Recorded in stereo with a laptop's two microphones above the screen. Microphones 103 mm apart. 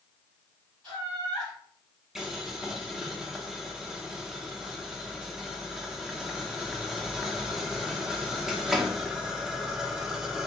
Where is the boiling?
5° right (ahead or behind), 0.8 m.